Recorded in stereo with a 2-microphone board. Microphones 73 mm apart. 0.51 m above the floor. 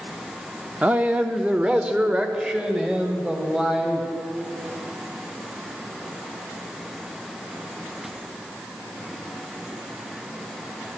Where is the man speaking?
15° right (ahead or behind), 0.7 m; by 4.1 s 10° right (ahead or behind), 2.5 m.